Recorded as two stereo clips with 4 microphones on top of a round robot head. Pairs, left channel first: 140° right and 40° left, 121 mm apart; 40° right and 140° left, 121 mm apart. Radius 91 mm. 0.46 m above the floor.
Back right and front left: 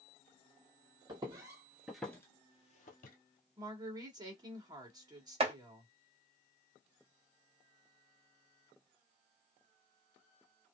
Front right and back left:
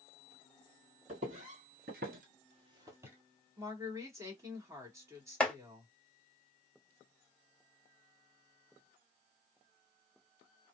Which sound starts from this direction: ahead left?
Chopping, at 5.4 s.